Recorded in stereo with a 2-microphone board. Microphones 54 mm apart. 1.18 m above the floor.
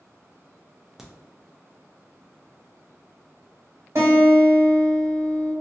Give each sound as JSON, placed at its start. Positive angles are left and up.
{"t": 1.0, "sound": "a crack", "side_deg": -10, "distance_m": 0.5}
{"t": 4.0, "sound": "a guitar", "side_deg": -60, "distance_m": 1.6}